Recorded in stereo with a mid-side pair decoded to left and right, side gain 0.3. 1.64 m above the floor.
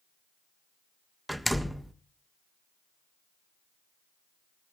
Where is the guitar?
I don't hear a guitar.